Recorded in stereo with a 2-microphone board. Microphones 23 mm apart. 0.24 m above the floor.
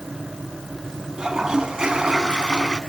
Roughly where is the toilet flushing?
Right.